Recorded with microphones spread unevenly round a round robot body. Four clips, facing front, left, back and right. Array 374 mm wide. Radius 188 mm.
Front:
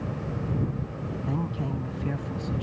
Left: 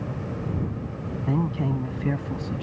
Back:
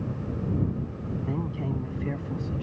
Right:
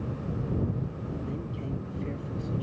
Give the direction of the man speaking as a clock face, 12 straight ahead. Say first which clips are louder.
Left 9 dB, front 2 dB; 9 o'clock.